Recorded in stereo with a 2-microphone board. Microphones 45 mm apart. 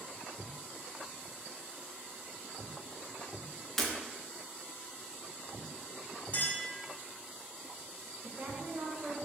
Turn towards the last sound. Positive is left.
turn(degrees=-35)  # may be behind; listen again after turning